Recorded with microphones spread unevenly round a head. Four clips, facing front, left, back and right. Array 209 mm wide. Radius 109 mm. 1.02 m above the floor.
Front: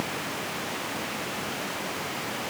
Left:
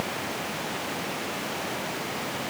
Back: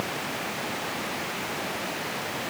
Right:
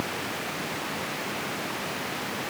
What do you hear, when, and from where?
Only background noise.